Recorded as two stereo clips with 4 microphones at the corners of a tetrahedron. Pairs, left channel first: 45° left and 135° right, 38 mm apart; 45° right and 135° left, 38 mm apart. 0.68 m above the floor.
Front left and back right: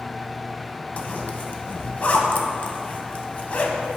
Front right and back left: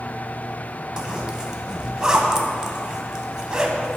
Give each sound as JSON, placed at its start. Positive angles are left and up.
{"t": 1.0, "sound": "a zipper", "azimuth_deg": 75, "distance_m": 0.7}